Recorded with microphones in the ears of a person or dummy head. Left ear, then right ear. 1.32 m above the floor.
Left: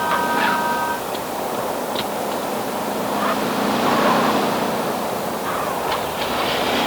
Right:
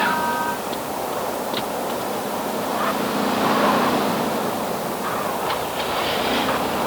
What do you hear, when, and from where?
Only background noise.